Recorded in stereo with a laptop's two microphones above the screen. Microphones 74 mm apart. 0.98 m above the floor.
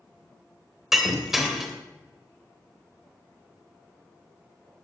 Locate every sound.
0.9 s breaking glass: 5° right (ahead or behind), 2.5 m